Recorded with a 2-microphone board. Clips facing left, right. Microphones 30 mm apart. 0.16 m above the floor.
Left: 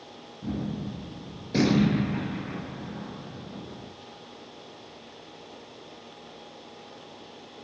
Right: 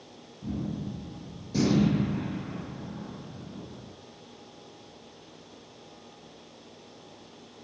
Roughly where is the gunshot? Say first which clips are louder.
Left 2 dB; left.